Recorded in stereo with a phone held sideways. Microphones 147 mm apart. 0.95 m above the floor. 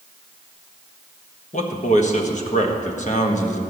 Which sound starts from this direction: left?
A man speaking, at 1.5 s.